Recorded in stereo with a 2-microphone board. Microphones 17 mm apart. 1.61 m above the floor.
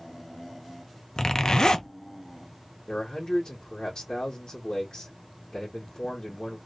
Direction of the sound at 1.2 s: 55° left (ahead or behind).